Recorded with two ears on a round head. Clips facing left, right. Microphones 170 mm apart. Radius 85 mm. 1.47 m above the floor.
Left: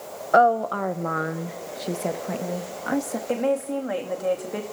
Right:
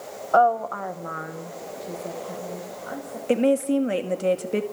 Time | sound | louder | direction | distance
0.3 | a woman speaking | left 1 dB | 20° left (ahead or behind) | 1.1 m
3.3 | a woman speaking | right 5 dB | 35° right (ahead or behind) | 2 m